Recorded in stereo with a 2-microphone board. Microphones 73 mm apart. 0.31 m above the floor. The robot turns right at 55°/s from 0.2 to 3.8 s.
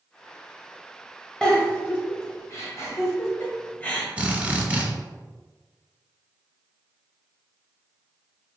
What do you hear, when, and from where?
1.4 s a giggle: 10° left (ahead or behind), 1.1 m; by 4.1 s 20° left (ahead or behind), 1.1 m
4.2 s a drill: 20° right (ahead or behind), 1.0 m